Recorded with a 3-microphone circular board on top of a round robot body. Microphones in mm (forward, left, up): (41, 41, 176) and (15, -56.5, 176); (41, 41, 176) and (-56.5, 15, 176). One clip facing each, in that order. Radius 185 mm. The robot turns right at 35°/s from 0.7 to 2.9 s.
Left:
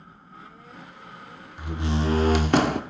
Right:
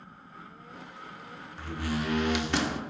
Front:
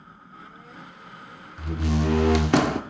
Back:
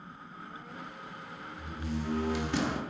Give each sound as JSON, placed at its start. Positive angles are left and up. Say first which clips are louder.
{"t": 1.6, "sound": "a door slam", "louder": "left 5 dB, front 11 dB", "azimuth_deg": 0, "distance_m": 0.9}